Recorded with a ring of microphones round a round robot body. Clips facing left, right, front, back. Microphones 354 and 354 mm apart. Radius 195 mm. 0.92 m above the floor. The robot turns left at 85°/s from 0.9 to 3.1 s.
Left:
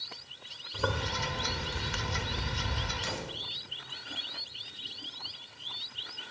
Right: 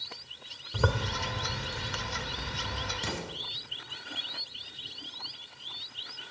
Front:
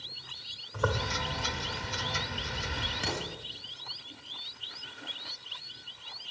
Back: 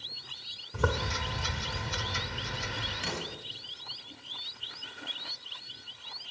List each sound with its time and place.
0.7 s a zipper: 125° right, 1.4 m; by 2.9 s 60° left, 1.4 m
3.0 s an explosion: 40° right, 2.0 m; by 3.3 s 45° right, 2.0 m